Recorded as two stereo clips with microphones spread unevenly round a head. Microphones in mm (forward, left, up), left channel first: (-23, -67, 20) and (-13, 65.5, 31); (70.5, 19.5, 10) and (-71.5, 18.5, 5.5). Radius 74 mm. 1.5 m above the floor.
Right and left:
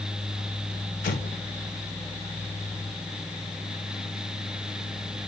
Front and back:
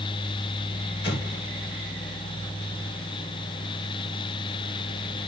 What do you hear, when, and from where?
1.0 s an explosion: 55° right, 1.4 m